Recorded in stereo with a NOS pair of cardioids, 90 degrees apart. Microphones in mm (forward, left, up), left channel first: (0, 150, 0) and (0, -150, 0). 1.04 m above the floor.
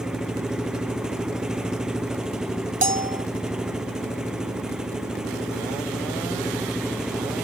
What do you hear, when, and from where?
0.0 s an engine running: straight ahead
2.8 s a bell: 25° right